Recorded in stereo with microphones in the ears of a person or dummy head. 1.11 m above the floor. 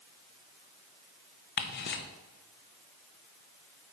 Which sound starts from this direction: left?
Ticking, at 1.6 s.